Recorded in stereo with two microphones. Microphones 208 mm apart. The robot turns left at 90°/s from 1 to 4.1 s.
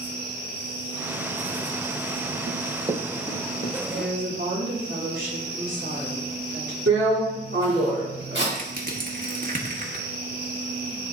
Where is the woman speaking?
55° right (ahead or behind), 3 m; by 6.8 s 70° right (ahead or behind), 3 m.